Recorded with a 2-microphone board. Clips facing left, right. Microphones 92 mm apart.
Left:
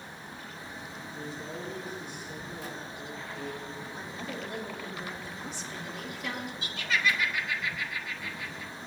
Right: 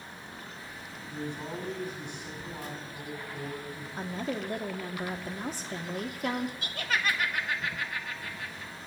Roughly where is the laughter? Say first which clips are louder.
Left 1 dB; right.